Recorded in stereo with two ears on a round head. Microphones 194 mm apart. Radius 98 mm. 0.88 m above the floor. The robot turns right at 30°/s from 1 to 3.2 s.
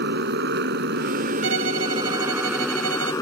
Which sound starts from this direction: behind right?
A violin, at 1.4 s.